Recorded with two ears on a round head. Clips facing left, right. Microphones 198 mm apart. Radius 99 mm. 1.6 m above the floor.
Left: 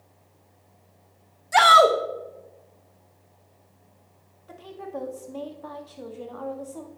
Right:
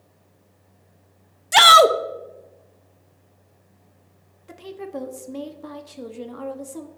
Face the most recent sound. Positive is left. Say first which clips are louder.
# right 3 dB
turn(degrees=-30)  # may be behind; listen again after turning